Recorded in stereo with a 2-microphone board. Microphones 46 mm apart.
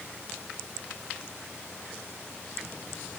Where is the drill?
I don't hear a drill.